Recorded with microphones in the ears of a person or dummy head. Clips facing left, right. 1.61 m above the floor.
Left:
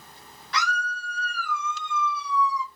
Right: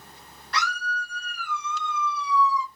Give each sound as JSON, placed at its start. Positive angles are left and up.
{"t": 0.5, "sound": "a scream", "side_deg": 5, "distance_m": 1.4}